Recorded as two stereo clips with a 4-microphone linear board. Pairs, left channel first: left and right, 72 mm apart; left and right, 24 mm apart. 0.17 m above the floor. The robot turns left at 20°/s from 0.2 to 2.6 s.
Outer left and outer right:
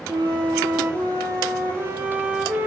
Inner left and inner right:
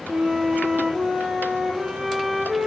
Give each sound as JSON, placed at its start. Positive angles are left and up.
{"t": 0.1, "sound": "a flute", "azimuth_deg": -110, "distance_m": 1.4}